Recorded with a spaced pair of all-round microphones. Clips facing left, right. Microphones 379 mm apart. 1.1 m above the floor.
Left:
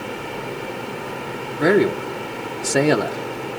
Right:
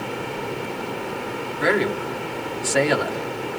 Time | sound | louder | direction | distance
1.6 | a man speaking | left 6 dB | 55° left (ahead or behind) | 0.9 m